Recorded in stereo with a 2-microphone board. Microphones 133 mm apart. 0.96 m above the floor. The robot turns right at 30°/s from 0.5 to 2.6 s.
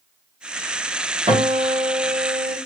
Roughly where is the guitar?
Behind right.